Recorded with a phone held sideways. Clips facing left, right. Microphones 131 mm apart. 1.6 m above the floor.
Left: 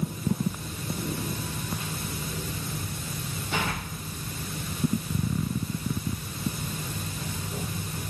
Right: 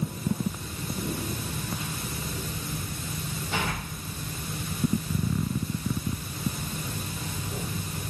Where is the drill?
I don't hear a drill.